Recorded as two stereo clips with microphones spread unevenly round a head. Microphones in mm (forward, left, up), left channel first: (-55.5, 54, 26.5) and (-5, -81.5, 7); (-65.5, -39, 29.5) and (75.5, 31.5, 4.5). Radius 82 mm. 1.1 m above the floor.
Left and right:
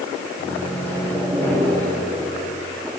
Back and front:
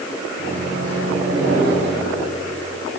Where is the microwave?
30° left, 7 m.